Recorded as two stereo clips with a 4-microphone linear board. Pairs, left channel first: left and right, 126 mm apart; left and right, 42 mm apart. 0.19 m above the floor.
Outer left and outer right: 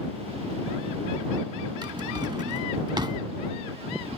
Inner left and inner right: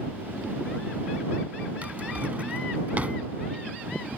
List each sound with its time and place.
1.8 s a drawer: 35° right (ahead or behind)